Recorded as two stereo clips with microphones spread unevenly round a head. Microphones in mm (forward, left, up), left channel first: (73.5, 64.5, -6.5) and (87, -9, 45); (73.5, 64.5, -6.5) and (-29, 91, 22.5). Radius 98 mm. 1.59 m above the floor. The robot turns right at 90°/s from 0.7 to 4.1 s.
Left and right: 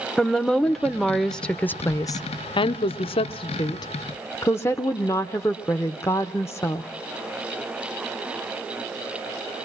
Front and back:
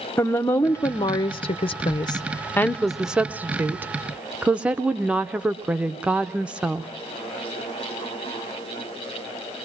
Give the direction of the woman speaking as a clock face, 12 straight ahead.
3 o'clock.